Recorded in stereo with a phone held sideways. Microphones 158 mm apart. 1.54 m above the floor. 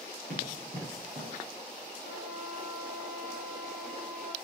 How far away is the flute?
About 1.9 m.